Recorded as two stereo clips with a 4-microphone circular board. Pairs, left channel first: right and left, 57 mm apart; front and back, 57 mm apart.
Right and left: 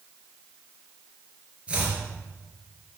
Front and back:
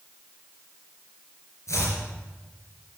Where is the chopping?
20° left, 3.5 m.